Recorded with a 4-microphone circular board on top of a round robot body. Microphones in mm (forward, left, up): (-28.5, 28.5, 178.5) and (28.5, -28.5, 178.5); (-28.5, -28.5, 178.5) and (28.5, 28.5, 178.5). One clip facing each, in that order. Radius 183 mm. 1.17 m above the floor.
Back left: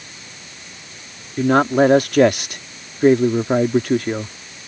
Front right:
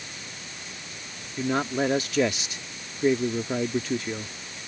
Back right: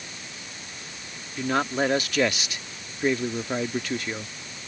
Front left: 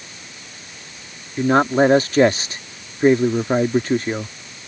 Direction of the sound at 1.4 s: 100° left.